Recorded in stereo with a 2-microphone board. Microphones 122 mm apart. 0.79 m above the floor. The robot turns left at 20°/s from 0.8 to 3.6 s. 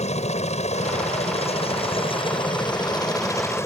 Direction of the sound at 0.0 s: 80° left.